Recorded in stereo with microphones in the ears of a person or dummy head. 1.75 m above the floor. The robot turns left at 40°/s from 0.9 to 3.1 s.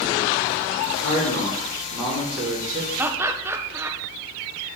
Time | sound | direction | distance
0.9 | a man speaking | 55° left | 5 m
3.0 | laughter | 10° right (ahead or behind) | 1.0 m